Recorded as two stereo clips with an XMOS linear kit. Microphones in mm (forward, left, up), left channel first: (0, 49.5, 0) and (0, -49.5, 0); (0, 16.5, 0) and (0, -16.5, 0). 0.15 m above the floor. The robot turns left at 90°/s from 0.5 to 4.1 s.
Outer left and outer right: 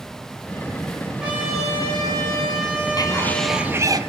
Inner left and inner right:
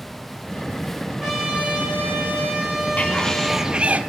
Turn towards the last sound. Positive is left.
turn(degrees=-55)